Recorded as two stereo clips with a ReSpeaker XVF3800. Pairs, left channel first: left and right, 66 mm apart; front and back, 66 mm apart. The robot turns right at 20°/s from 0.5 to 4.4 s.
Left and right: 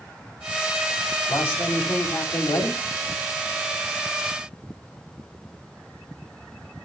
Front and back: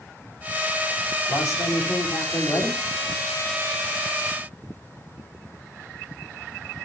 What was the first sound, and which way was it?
A man speaking, 30° left.